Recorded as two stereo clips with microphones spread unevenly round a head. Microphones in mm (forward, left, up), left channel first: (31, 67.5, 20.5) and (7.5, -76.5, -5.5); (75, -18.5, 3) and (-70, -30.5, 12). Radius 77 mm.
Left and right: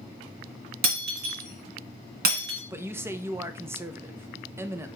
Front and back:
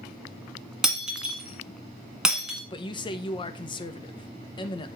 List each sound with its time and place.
0.8 s breaking glass: 95° right, 1.6 m
2.7 s a man speaking: 40° right, 0.8 m